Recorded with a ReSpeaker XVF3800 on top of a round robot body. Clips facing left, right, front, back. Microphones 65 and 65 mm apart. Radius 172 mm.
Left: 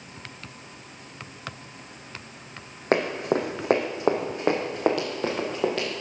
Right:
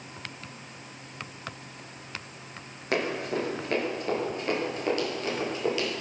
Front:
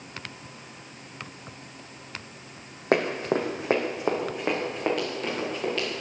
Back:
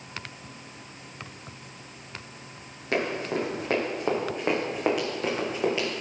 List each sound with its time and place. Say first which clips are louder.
2.9 s running footsteps: left 5 dB, front 4 dB; 40° left, 1.7 m; by 5.9 s 105° left, 4 m